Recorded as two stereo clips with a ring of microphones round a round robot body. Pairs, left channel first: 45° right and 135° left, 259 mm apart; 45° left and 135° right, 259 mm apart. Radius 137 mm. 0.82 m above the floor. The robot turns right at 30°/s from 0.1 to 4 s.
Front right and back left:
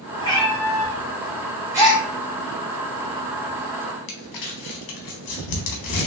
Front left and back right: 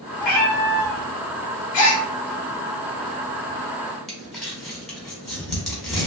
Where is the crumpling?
45° right, 0.8 m.